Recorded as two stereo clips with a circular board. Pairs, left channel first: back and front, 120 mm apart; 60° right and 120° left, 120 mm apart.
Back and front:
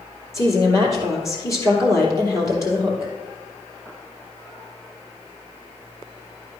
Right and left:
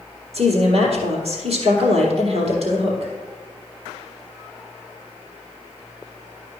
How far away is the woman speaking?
About 3.5 m.